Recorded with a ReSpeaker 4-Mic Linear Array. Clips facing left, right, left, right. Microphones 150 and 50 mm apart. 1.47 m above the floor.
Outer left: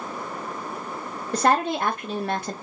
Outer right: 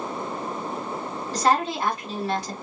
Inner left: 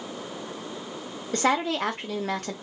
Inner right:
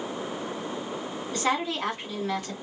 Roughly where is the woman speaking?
Left.